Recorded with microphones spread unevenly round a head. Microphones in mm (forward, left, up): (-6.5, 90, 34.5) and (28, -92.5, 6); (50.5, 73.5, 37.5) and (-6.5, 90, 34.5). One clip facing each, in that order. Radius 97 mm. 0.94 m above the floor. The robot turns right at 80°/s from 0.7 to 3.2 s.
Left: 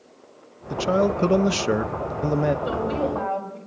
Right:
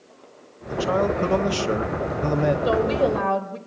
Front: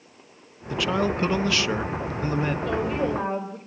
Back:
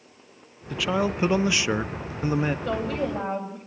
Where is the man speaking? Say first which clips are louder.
Left 1 dB, front 1 dB; 75° left, 0.5 m; by 2.5 s 135° right, 0.5 m.